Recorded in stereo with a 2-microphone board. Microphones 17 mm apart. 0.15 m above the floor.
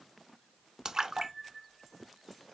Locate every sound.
0.8 s a splash: 35° right (ahead or behind), 0.6 m